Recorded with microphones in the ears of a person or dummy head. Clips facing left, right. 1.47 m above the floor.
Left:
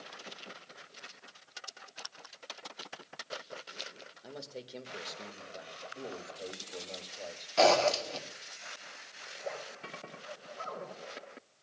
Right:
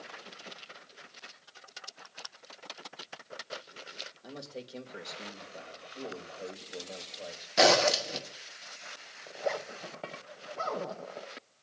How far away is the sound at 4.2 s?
About 1.9 m.